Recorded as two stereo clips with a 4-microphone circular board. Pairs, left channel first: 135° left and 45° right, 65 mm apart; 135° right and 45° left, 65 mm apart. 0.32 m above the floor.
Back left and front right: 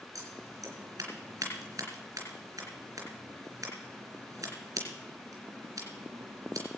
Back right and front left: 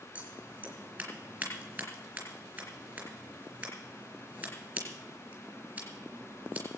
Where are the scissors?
15° right, 3.5 m.